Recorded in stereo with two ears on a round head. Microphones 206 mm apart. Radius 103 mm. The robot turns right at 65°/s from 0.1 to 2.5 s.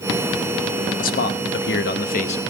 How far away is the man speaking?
About 1.0 m.